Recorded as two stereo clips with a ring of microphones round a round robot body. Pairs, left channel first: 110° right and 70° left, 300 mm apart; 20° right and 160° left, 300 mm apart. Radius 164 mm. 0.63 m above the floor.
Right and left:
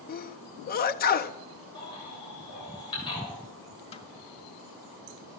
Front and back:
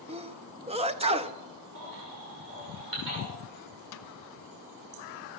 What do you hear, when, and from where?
0.1 s a sneeze: 145° right, 0.6 m
1.8 s a baby crying: 175° left, 7.5 m
3.9 s a snare drum: 45° right, 0.8 m